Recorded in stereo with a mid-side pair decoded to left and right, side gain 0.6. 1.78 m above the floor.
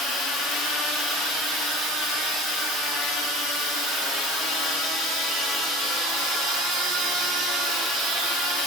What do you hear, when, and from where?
Only background noise.